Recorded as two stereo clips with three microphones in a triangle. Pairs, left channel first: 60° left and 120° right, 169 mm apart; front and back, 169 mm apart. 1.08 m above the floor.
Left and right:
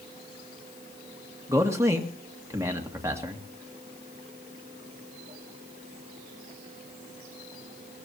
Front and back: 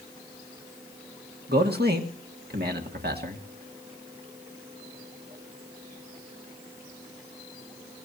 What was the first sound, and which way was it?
A man speaking, 170° left.